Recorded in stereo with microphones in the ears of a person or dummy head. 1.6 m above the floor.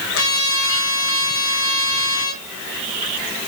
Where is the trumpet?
65° left (ahead or behind), 2.5 m.